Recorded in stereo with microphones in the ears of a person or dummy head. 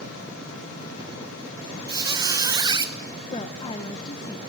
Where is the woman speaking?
30° left (ahead or behind), 1.2 m.